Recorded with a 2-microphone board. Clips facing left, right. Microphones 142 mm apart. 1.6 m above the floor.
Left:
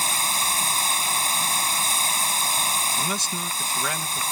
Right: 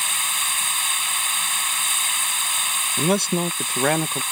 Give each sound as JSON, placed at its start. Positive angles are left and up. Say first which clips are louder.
{"t": 0.0, "sound": "running water", "louder": "left 4 dB", "side_deg": 35}
{"t": 3.0, "sound": "a man speaking", "louder": "right 9 dB", "side_deg": -60}